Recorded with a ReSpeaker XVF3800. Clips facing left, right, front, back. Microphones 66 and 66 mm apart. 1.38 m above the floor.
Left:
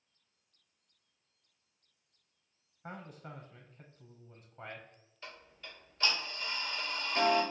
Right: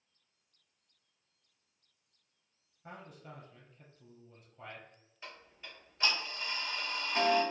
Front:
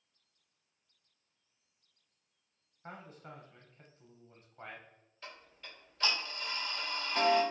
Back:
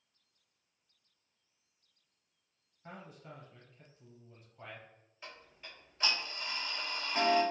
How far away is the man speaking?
About 0.7 m.